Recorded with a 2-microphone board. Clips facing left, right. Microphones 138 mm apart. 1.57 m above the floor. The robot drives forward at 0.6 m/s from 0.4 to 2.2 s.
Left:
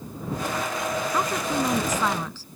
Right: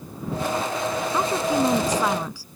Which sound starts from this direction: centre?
A woman speaking, at 1.1 s.